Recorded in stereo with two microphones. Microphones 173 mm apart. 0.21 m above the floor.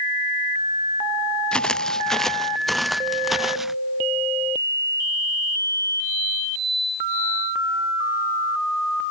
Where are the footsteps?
5° left (ahead or behind); by 3.8 s centre (ahead or behind).